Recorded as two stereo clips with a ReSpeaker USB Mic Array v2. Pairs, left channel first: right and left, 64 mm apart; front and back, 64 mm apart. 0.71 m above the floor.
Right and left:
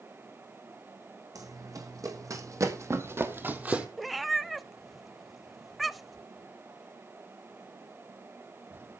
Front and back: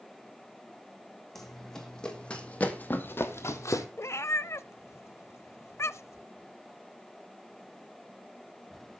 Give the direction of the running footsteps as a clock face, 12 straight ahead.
9 o'clock.